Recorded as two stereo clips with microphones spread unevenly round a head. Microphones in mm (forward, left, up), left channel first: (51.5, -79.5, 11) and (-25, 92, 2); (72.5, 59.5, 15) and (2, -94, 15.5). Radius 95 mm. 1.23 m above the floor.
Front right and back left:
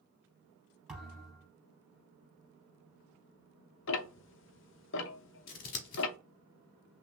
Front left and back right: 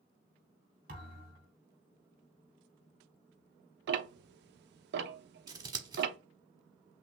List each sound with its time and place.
0.9 s a thud: 160° right, 3 m
3.9 s ticking: 95° right, 0.6 m
5.5 s scissors: 55° right, 1.1 m